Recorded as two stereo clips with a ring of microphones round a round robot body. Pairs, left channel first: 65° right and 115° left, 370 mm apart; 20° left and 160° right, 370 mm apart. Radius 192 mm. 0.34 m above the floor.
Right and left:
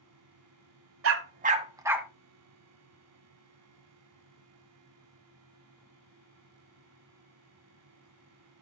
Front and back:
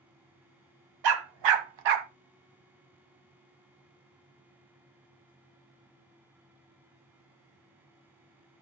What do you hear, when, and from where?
1.0 s a dog barking: 170° left, 1.1 m; by 2.1 s 160° right, 1.3 m